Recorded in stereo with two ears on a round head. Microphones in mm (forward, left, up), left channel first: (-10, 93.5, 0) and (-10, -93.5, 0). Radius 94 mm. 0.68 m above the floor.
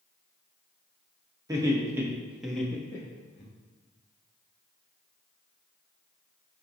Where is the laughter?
15° right (ahead or behind), 1.0 m; by 3.5 s 20° left (ahead or behind), 0.8 m.